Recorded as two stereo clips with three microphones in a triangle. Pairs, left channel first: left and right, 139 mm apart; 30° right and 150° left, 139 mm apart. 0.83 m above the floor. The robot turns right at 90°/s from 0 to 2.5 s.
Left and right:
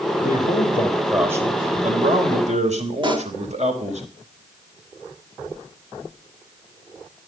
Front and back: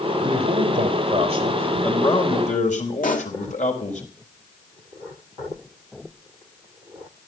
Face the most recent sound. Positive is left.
turn(degrees=-35)